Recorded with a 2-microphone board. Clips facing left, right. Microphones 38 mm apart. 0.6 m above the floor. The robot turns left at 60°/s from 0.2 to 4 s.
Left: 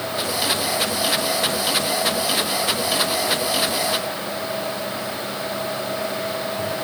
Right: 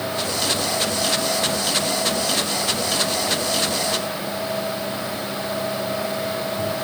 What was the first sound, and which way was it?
Only background noise.